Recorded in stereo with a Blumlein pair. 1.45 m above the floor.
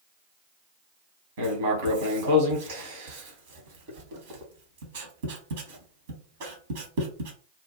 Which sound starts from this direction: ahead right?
Writing, at 1.4 s.